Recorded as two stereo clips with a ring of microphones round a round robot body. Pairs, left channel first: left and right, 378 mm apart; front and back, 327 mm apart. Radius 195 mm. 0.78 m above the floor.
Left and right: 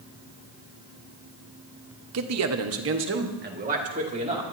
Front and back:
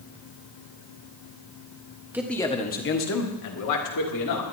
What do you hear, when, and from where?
2.1 s a man speaking: 100° right, 1.1 m; by 4.4 s 15° right, 2.5 m